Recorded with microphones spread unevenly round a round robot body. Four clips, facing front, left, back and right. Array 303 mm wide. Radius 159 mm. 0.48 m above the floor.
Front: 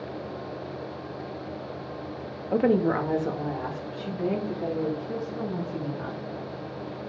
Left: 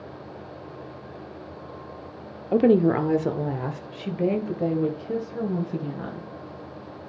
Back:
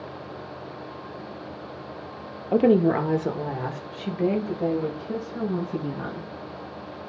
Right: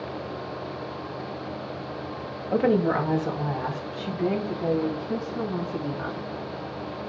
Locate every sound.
2.5 s a woman speaking: 125° left, 0.9 m; by 6.3 s 105° left, 3.5 m